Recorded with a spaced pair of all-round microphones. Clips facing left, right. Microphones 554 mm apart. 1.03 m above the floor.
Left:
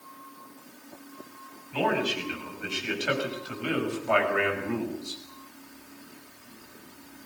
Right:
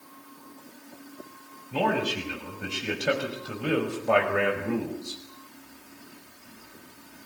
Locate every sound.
1.7 s a man speaking: 75° right (ahead or behind), 7 m; by 5.2 s 70° right (ahead or behind), 5 m